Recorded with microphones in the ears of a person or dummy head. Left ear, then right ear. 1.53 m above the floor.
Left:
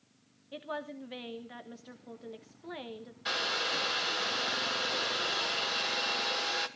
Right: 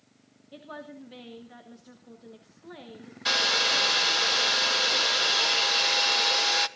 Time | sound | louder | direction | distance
0.5 | a woman speaking | left 3 dB | 20° left (ahead or behind) | 1.1 m
3.2 | a hair dryer | right 8 dB | 25° right (ahead or behind) | 0.9 m